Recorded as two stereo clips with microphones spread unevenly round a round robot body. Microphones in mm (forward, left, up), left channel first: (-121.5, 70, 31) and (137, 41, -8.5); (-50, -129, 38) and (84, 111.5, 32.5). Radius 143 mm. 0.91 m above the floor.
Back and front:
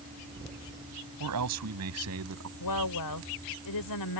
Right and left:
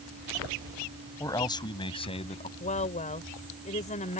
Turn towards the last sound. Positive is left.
turn(degrees=175)